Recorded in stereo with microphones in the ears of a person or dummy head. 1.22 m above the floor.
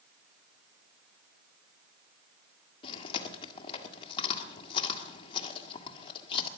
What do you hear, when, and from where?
2.8 s chewing: 30° left (ahead or behind), 1.7 m